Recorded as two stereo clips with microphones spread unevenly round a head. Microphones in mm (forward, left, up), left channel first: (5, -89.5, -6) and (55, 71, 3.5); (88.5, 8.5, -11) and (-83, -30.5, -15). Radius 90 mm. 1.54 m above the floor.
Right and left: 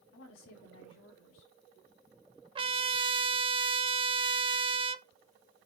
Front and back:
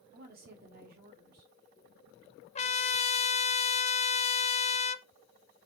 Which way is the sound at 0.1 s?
130° right.